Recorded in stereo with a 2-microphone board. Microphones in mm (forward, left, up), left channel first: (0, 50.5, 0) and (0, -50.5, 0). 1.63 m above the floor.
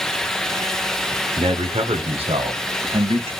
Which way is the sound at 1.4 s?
75° right (ahead or behind).